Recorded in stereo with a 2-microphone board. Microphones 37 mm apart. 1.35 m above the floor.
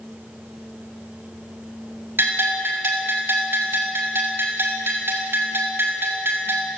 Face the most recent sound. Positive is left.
turn(degrees=-70)  # may be behind; listen again after turning